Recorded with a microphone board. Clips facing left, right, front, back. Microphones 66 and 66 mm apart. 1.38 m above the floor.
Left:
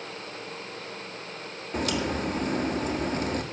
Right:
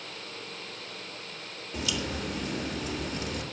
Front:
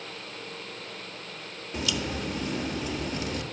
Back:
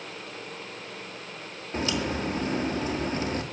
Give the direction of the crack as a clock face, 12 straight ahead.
8 o'clock.